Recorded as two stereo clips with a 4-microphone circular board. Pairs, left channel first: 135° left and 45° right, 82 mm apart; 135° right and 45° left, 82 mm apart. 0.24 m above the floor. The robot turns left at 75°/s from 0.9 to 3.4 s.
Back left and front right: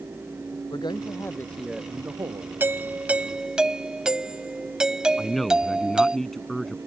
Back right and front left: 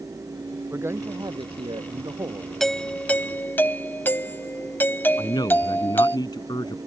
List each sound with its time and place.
0.7 s a man speaking: 105° left; by 2.5 s 15° right
2.6 s a doorbell: 55° right; by 6.2 s 115° right
5.2 s a man speaking: 140° right